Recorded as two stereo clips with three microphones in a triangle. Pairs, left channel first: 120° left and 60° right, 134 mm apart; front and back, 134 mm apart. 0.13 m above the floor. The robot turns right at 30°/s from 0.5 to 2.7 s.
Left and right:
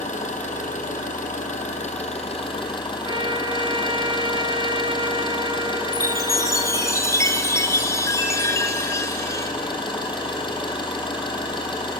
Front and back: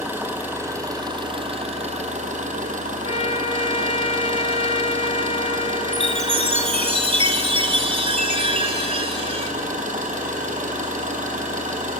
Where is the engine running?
105° left, 2.5 m; by 12.0 s 170° left, 2.5 m.